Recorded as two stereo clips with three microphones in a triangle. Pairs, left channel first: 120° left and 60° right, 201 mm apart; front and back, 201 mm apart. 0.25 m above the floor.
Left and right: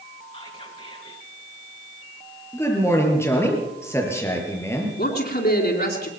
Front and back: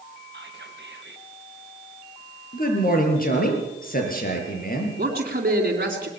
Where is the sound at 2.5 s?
45° left, 5.5 m.